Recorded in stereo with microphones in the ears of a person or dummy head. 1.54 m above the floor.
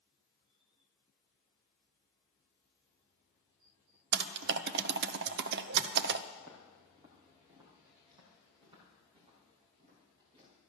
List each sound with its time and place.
4.1 s typing on a keyboard: 60° right (ahead or behind), 0.6 m
6.4 s footsteps: 15° right (ahead or behind), 3 m; by 10.5 s 25° right (ahead or behind), 8.5 m